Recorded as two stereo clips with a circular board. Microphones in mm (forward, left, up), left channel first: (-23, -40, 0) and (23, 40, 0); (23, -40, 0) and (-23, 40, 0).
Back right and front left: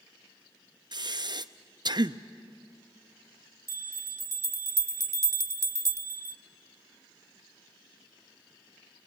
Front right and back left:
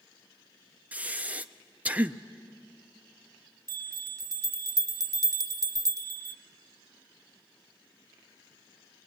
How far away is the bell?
About 0.9 m.